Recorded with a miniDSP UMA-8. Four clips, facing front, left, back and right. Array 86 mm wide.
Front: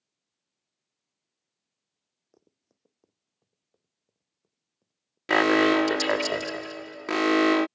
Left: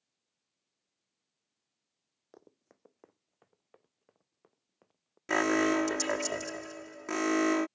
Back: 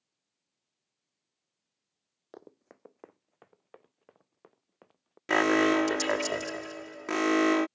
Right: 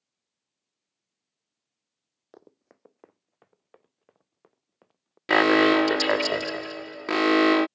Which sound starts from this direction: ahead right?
An alarm, at 5.3 s.